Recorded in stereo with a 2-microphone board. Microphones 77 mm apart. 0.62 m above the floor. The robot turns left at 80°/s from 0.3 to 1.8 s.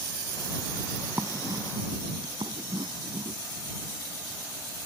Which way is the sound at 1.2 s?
30° right (ahead or behind).